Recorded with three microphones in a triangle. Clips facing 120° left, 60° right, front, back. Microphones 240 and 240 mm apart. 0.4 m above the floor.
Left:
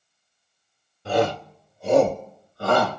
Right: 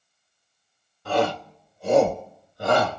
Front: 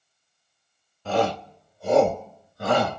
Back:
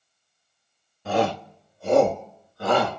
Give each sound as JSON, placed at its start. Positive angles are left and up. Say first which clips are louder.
{"t": 1.1, "sound": "a shout", "louder": "left 2 dB, even", "azimuth_deg": 125, "distance_m": 1.4}